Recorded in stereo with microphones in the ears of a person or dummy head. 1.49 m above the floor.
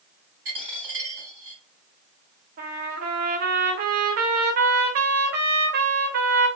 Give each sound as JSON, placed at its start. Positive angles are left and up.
{"t": 0.5, "sound": "a dropped coin", "side_deg": -35, "distance_m": 1.9}
{"t": 2.6, "sound": "a trumpet", "side_deg": -50, "distance_m": 0.6}